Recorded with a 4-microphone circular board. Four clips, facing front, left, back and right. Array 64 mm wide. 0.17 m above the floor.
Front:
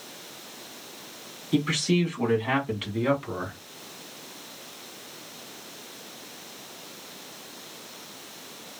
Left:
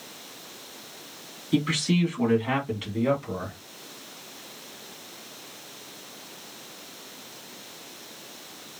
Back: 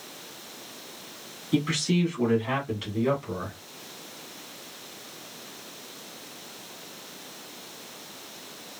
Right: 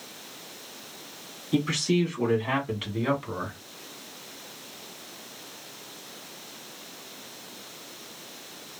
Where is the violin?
No violin in this recording.